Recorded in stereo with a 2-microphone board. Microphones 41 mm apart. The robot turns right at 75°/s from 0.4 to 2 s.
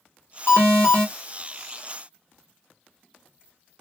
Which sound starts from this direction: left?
An alarm, at 0.5 s.